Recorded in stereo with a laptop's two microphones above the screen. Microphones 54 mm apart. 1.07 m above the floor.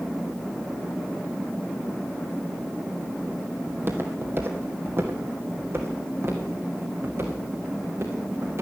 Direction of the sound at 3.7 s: 40° right (ahead or behind).